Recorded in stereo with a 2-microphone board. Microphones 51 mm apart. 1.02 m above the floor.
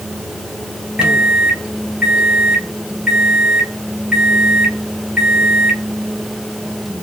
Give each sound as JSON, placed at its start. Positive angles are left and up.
{"t": 1.0, "sound": "a microwave", "side_deg": -15, "distance_m": 0.8}